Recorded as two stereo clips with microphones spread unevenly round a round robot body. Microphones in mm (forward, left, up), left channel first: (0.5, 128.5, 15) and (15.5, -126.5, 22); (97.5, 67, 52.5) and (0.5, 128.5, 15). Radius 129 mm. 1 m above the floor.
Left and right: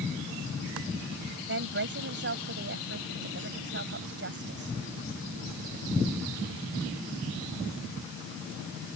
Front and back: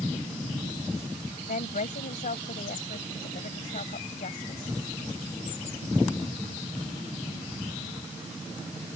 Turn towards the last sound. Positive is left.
turn(degrees=-40)